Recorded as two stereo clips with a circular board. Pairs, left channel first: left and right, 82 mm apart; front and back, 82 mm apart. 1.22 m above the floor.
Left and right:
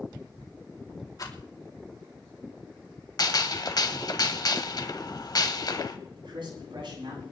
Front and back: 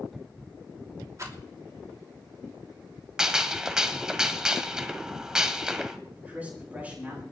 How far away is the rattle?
About 3 m.